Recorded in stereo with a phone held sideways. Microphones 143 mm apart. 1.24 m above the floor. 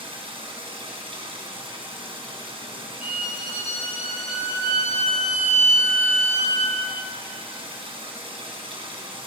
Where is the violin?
45° left (ahead or behind), 9 m.